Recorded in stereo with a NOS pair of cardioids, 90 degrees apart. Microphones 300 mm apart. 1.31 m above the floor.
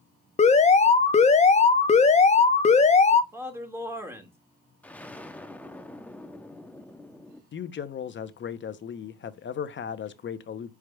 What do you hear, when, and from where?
0.4 s an alarm: 25° left, 0.7 m
3.3 s a man speaking: 10° right, 1.8 m
4.8 s an explosion: 5° left, 0.6 m
7.5 s a man speaking: 40° left, 0.7 m